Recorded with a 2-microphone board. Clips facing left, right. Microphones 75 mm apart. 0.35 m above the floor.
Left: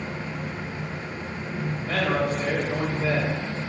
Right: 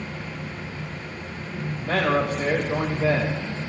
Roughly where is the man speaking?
Right.